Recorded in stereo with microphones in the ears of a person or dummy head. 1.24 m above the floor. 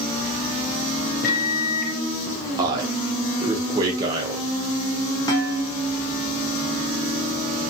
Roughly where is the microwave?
Left.